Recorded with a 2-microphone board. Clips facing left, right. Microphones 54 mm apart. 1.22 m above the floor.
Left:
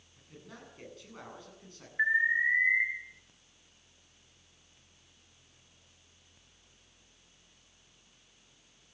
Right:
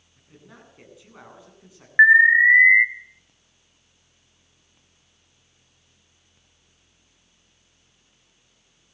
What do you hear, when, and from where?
0.2 s a man speaking: 10° right (ahead or behind), 10 m
2.0 s an alarm: 75° right (ahead or behind), 1.4 m